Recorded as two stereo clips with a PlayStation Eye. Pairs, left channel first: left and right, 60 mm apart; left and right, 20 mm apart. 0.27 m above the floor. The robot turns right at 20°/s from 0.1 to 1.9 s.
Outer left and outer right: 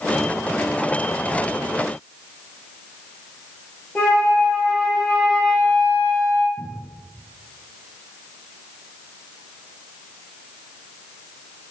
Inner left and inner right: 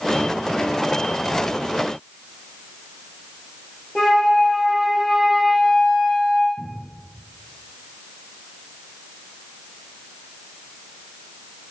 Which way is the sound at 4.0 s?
20° left (ahead or behind).